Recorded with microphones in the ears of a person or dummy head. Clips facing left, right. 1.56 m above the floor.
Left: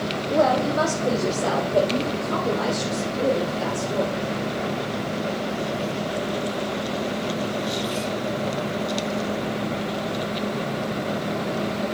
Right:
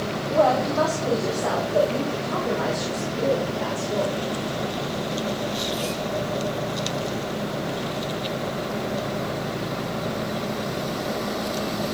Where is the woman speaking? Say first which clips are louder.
Even; 25° left (ahead or behind), 0.9 m; by 4.2 s 55° left (ahead or behind), 4 m.